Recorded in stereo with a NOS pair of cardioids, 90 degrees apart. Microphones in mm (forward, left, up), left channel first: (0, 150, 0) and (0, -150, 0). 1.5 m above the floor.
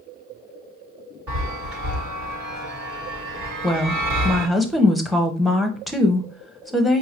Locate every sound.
1.3 s a chime: 60° right, 1.8 m
3.6 s a woman speaking: straight ahead, 0.9 m